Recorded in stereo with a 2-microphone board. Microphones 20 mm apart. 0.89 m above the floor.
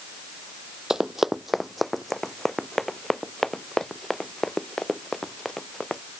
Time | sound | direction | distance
0.9 | running footsteps | 25° right (ahead or behind) | ?